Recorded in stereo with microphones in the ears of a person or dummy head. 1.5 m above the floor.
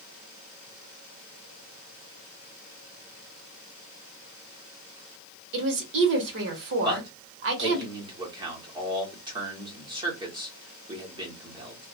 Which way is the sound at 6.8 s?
25° right (ahead or behind).